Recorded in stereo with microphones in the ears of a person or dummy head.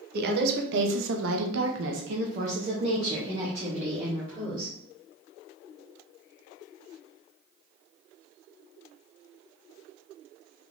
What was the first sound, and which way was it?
A woman speaking, 55° right (ahead or behind).